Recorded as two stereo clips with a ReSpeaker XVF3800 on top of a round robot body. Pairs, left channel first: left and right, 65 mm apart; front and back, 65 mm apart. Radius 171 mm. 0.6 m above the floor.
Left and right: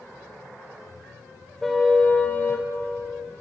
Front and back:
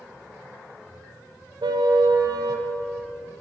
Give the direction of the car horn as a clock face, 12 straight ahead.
6 o'clock.